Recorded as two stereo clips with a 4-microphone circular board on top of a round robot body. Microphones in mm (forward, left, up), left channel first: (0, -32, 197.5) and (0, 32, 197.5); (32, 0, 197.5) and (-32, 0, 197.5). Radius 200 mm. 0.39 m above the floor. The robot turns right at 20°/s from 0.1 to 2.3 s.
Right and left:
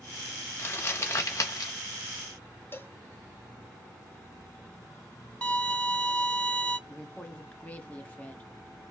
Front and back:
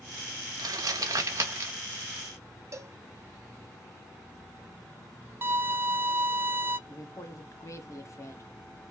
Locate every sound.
0.6 s crumpling: 155° right, 0.5 m; by 1.7 s 130° right, 0.5 m
2.7 s a cowbell: 145° right, 1.3 m
5.4 s a violin: 155° right, 1.4 m
6.9 s a woman speaking: 25° right, 1.8 m